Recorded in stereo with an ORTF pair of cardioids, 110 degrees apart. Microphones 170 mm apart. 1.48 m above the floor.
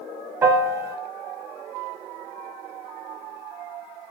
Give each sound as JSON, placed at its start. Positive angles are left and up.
{"t": 0.4, "sound": "a piano", "azimuth_deg": -15, "distance_m": 0.6}